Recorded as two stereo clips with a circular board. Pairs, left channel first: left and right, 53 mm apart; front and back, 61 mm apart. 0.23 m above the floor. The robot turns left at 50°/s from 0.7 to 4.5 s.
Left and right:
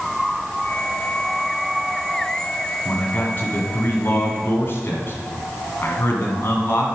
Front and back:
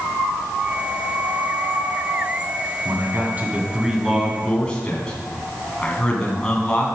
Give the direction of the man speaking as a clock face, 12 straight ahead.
7 o'clock.